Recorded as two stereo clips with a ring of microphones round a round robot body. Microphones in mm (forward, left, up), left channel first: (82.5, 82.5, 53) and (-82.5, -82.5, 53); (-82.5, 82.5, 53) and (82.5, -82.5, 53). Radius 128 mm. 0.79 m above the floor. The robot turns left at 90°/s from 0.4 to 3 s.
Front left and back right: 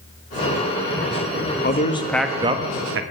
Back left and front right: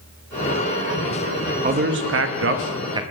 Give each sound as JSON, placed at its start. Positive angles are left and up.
{"t": 1.6, "sound": "a man speaking", "azimuth_deg": 5, "distance_m": 1.0}